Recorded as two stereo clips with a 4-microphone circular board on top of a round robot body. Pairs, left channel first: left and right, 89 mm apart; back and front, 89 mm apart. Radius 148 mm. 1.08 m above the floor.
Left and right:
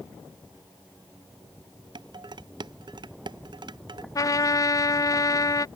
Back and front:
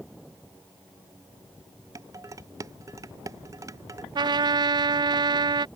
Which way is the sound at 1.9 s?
55° right.